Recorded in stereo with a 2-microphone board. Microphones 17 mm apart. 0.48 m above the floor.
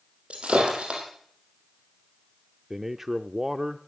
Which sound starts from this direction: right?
Breaking glass, at 0.3 s.